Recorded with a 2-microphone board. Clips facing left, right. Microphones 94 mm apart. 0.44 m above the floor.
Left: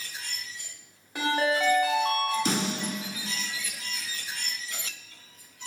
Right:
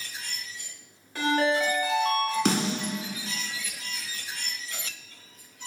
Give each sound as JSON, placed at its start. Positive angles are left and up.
{"t": 1.1, "sound": "a ringtone", "side_deg": 15, "distance_m": 1.1}
{"t": 2.5, "sound": "a snare drum", "side_deg": -75, "distance_m": 0.8}